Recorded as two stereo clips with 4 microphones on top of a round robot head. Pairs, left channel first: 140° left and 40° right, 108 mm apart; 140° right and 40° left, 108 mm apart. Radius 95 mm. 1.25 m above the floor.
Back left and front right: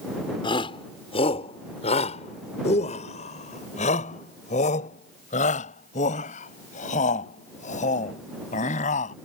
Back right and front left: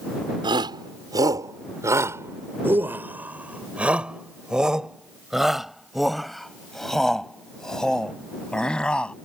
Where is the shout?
90° left; by 9.1 s 140° left.